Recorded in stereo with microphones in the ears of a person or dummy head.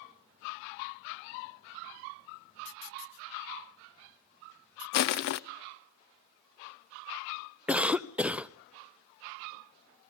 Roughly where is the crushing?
Left.